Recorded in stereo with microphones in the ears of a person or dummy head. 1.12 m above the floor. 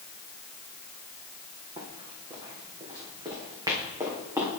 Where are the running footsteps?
30° right (ahead or behind), 3 m; by 4.5 s 15° right (ahead or behind), 4 m.